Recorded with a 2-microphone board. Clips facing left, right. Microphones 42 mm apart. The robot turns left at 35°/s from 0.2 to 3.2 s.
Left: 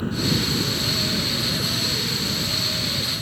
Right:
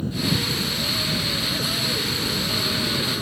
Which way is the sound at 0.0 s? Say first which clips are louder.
Left 1 dB; 45° left.